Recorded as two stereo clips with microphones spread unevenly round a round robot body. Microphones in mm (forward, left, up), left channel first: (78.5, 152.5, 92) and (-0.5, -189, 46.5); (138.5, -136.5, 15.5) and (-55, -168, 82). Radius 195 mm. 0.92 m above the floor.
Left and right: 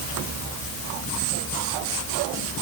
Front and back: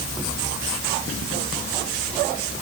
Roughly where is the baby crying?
I don't hear a baby crying.